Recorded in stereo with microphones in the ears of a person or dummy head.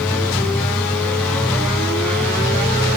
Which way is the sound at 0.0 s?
5° left (ahead or behind).